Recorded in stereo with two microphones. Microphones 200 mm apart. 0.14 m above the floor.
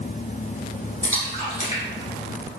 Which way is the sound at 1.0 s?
40° left (ahead or behind).